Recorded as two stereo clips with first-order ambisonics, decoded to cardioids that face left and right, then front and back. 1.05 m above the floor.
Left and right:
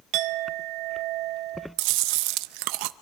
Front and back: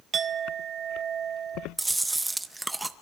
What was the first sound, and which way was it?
A clink, 120° right.